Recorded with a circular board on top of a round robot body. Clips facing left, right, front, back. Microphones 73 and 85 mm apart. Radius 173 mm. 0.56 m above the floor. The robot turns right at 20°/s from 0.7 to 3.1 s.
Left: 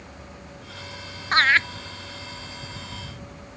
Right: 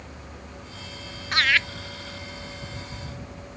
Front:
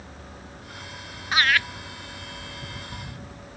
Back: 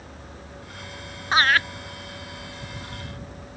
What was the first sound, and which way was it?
Laughter, 135° left.